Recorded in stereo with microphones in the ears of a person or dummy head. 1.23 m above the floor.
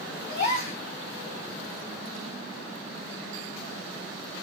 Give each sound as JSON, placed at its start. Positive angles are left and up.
{"t": 0.3, "sound": "a gasp", "side_deg": 50, "distance_m": 3.0}